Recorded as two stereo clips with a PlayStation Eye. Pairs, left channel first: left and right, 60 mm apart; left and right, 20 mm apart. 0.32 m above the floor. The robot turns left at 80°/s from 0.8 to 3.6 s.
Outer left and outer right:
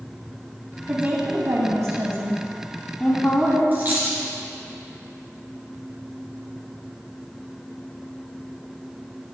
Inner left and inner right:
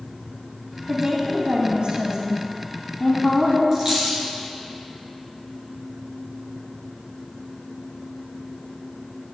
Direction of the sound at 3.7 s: 30° right (ahead or behind).